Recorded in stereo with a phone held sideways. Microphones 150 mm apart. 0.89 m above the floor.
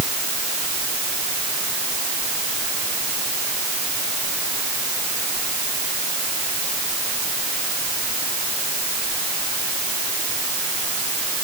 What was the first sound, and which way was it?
Only background noise.